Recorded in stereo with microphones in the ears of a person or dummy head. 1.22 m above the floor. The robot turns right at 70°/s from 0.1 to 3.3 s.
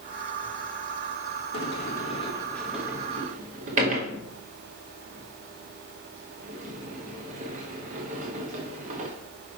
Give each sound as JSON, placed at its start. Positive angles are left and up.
{"t": 1.5, "sound": "a sliding door", "side_deg": 80, "distance_m": 1.2}